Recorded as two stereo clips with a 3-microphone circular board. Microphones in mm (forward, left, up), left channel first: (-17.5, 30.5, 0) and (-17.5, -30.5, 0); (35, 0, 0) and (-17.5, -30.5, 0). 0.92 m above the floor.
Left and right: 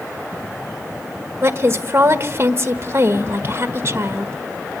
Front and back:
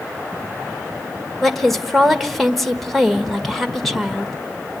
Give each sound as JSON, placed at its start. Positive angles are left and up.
{"t": 1.4, "sound": "a woman speaking", "azimuth_deg": -55, "distance_m": 1.2}